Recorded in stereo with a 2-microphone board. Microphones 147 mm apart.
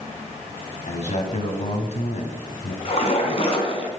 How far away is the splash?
About 2.5 m.